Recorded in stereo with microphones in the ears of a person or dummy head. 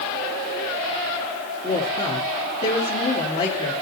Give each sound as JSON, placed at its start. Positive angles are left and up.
{"t": 1.6, "sound": "a woman speaking", "side_deg": 30, "distance_m": 3.0}